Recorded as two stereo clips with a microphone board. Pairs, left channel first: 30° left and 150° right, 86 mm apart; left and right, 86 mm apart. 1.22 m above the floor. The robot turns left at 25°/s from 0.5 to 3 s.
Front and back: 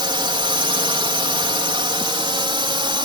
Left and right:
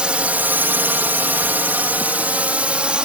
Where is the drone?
170° right; by 3.0 s 165° right.